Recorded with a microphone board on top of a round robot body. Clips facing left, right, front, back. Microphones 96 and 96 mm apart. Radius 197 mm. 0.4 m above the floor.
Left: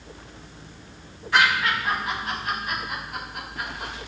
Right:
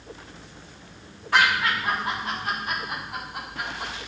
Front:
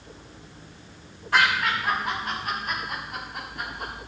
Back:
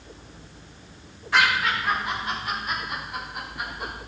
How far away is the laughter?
About 5.5 m.